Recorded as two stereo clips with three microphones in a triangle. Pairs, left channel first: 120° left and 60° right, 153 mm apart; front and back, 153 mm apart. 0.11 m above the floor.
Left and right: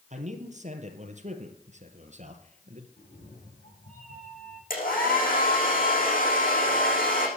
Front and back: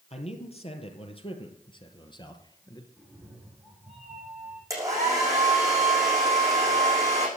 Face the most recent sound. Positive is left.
turn(degrees=115)